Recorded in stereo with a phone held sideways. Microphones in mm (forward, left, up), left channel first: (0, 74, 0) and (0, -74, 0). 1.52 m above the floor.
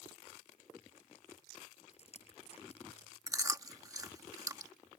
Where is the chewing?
25° right (ahead or behind).